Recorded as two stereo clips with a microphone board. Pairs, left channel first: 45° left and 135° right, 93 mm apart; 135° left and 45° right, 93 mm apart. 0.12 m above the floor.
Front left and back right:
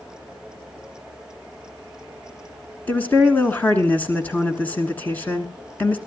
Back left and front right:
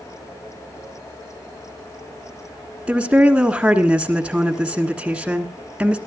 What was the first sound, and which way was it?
A woman speaking, 15° left.